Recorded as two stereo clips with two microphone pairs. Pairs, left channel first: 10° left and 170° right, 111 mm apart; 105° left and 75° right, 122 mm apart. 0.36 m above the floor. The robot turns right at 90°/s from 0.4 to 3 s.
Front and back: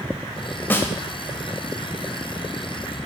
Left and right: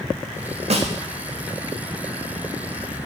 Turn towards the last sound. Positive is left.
turn(degrees=145)